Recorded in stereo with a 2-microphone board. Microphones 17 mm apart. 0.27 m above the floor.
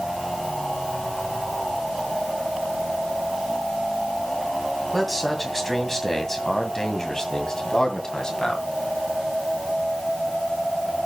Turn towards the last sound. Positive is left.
turn(degrees=50)  # may be behind; listen again after turning